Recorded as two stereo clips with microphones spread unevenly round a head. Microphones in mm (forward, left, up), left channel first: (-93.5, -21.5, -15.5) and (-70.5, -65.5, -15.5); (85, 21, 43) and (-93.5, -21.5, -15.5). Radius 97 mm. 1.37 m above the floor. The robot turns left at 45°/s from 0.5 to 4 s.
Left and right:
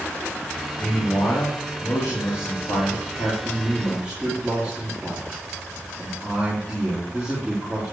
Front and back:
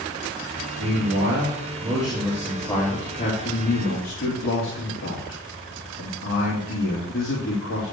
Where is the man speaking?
Straight behind, 3 m; by 7.9 s 40° left, 3 m.